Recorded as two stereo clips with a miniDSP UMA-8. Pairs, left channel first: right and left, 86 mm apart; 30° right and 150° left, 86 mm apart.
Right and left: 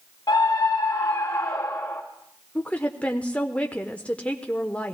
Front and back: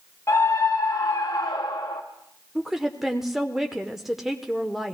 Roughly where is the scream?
Right.